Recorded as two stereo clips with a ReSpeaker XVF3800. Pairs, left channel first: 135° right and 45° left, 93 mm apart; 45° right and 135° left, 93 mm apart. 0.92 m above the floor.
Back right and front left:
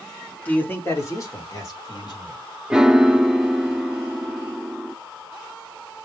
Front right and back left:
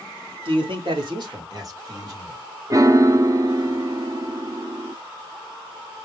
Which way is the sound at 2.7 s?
120° left.